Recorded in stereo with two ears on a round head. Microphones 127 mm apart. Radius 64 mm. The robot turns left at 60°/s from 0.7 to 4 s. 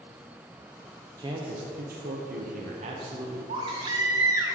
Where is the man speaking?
30° right, 0.8 m; by 3.4 s 160° right, 0.8 m.